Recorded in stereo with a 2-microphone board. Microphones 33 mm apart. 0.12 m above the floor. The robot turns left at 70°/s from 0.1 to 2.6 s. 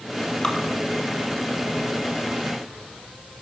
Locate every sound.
0.4 s dripping: 25° left (ahead or behind), 1.0 m; by 0.6 s 20° left (ahead or behind), 1.0 m